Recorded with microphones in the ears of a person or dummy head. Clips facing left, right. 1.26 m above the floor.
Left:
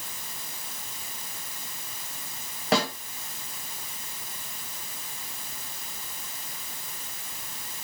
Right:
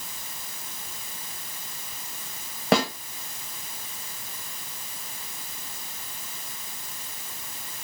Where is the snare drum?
50° right (ahead or behind), 0.9 m.